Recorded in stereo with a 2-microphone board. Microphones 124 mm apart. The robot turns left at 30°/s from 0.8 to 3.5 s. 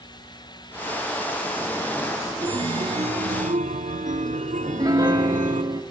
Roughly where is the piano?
Right.